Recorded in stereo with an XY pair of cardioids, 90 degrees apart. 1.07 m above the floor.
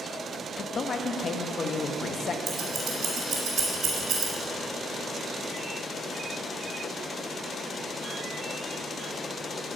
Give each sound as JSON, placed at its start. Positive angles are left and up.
{"t": 0.6, "sound": "a man speaking", "azimuth_deg": 50, "distance_m": 0.9}
{"t": 2.5, "sound": "scissors", "azimuth_deg": -60, "distance_m": 3.5}